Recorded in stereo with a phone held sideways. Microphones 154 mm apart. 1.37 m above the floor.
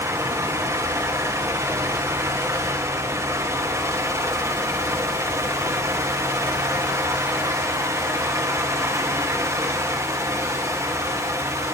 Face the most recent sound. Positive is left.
turn(degrees=-20)  # may be behind; listen again after turning